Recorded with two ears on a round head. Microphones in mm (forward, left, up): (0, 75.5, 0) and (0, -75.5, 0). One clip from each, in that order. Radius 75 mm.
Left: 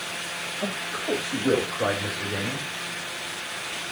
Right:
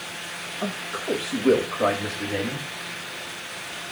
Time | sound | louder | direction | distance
0.6 | a man speaking | right 1 dB | 60° right (ahead or behind) | 2.5 m